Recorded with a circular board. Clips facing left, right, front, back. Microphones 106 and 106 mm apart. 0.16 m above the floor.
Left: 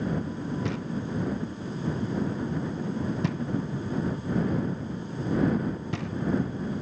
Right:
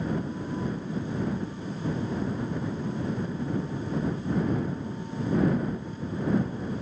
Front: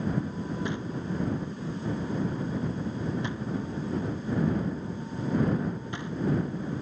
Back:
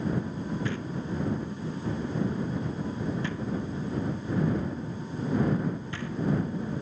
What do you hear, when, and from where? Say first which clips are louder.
0.7 s knocking: even, even; 70° left